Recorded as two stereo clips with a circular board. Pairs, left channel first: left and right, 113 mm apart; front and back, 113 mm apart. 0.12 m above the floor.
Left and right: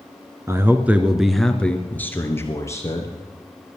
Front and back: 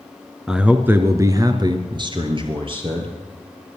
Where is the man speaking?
105° right, 1.4 m; by 3.1 s 150° left, 2.5 m.